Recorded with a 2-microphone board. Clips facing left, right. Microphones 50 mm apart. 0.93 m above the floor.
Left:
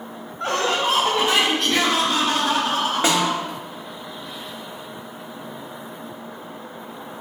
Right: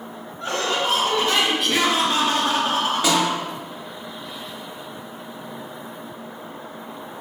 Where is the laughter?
55° left (ahead or behind), 1.2 m; by 3.4 s 40° right (ahead or behind), 2.5 m.